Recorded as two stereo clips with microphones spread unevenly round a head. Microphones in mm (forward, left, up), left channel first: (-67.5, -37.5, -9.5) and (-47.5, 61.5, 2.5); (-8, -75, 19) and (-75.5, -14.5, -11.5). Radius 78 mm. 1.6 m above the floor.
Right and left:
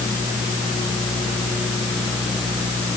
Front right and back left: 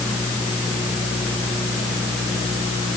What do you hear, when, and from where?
Only background noise.